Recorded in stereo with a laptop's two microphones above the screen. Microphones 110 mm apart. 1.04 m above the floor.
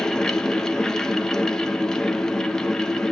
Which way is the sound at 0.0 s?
5° left (ahead or behind).